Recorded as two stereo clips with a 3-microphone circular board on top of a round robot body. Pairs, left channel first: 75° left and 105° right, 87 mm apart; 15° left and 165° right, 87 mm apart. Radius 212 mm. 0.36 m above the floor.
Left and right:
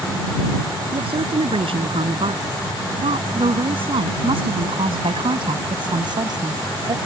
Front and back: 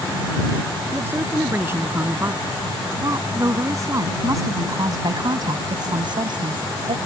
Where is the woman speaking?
100° right; by 7.0 s 150° right.